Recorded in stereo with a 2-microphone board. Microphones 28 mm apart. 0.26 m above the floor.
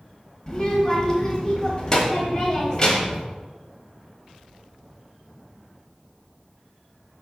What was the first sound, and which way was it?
A child speaking, 25° left (ahead or behind).